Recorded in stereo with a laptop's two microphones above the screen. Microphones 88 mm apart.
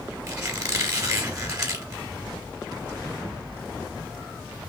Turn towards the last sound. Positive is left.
turn(degrees=-35)  # may be behind; listen again after turning